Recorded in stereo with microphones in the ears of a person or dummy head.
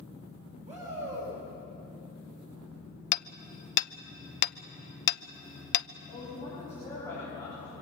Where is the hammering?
70° left (ahead or behind), 0.8 m.